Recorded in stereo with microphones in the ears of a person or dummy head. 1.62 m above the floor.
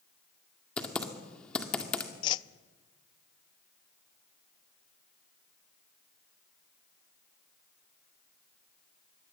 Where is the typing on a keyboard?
5° left (ahead or behind), 2.0 m.